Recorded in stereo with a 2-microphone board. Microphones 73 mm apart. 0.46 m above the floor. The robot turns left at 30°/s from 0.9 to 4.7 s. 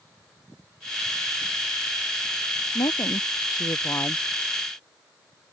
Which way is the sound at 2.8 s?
75° left.